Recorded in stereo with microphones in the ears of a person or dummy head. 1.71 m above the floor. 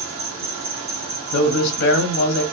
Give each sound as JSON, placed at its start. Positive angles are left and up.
{"t": 0.0, "sound": "an insect", "side_deg": -45, "distance_m": 0.9}
{"t": 1.3, "sound": "a man speaking", "side_deg": 65, "distance_m": 0.6}